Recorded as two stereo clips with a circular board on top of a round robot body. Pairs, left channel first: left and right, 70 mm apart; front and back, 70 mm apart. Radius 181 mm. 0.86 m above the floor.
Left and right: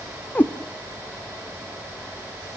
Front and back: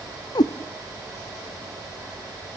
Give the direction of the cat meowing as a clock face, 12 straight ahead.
11 o'clock.